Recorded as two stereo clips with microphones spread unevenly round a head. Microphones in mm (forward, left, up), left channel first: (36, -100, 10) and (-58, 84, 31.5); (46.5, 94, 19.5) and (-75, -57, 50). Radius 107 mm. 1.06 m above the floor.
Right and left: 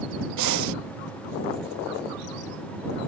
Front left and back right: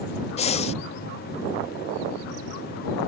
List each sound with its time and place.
0.4 s breathing: 110° left